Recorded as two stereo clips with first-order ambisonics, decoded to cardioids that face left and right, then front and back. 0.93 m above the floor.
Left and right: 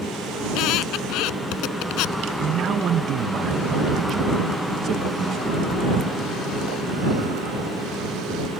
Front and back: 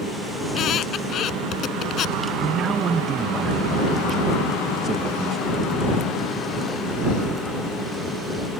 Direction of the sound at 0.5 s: 55° left.